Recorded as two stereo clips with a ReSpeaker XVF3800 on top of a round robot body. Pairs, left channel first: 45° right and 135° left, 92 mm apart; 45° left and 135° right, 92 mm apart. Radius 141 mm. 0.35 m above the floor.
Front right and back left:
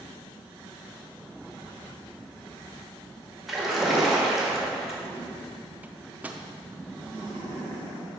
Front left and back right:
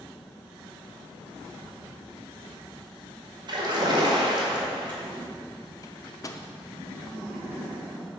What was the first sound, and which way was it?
A splash, 135° right.